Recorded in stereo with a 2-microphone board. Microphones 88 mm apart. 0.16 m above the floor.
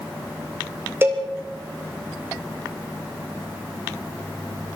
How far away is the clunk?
No clunk in this recording.